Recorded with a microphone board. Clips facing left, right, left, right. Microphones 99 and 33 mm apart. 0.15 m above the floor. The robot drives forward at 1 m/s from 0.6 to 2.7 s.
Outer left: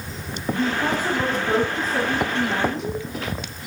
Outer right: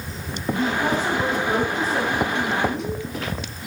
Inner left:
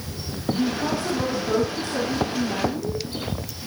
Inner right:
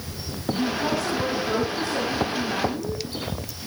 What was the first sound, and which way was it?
A woman speaking, 10° left (ahead or behind).